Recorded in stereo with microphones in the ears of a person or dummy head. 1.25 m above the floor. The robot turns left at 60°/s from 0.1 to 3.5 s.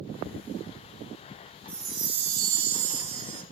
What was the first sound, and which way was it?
A chime, 10° right.